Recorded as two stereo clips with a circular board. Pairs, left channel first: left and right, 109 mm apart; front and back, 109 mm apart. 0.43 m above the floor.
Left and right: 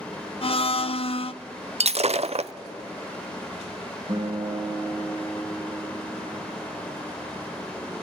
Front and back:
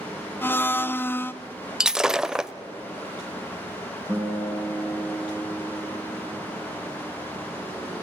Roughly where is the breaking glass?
Right.